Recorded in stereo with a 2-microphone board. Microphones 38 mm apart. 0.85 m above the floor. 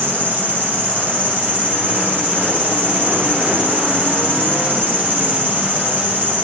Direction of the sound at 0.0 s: 70° right (ahead or behind).